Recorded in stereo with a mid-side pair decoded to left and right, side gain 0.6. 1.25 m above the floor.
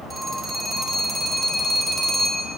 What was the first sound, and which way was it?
A phone ringing, 15° right.